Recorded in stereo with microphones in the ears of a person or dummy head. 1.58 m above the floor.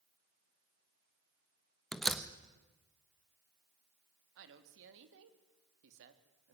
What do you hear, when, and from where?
1.9 s a door slam: centre (ahead or behind), 1.2 m
4.4 s a woman speaking: 70° right (ahead or behind), 2.5 m